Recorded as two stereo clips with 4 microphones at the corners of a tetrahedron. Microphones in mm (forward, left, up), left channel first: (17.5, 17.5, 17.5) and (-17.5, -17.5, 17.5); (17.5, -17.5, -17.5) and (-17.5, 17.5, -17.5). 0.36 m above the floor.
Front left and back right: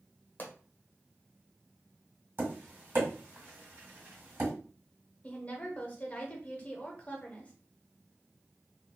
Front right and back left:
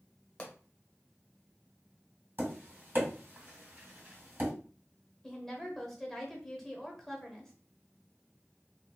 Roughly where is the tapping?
Behind.